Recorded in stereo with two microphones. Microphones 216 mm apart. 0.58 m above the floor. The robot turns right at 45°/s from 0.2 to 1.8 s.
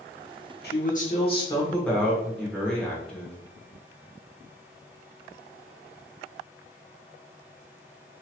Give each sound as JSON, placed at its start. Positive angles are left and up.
{"t": 0.6, "sound": "a man speaking", "azimuth_deg": 120, "distance_m": 1.2}